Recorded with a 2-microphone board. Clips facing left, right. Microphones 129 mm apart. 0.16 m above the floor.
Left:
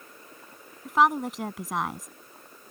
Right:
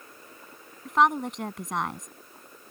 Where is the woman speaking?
Centre (ahead or behind).